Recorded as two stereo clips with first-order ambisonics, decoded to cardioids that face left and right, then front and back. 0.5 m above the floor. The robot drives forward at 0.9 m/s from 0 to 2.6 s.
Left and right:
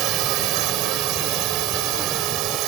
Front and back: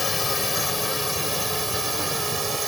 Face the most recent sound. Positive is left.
turn(degrees=-105)